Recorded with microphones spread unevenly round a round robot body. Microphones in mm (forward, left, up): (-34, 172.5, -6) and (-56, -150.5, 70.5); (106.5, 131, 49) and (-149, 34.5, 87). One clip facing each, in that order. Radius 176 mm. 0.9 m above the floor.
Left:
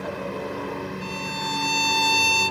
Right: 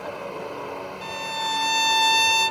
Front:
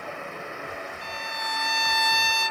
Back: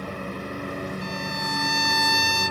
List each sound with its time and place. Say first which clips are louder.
0.0 s a lawn mower: left 3 dB, back 5 dB; 150° left
1.0 s a violin: left 3 dB, back 8 dB; 120° right